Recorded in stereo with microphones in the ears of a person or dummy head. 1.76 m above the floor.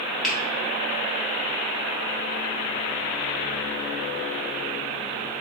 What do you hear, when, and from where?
0.2 s a finger snap: centre (ahead or behind), 1.4 m